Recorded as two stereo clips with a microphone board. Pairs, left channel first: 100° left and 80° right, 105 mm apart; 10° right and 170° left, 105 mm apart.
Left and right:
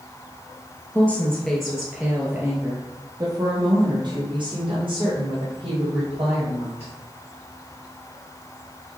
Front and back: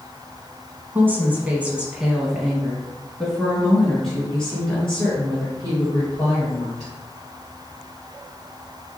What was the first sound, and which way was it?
A woman speaking, 140° left.